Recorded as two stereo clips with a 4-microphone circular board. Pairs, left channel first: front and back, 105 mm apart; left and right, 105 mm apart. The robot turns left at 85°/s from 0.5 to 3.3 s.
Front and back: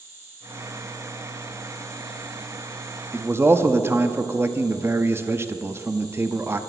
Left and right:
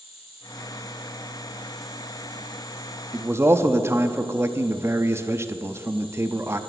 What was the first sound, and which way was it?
An insect, 110° left.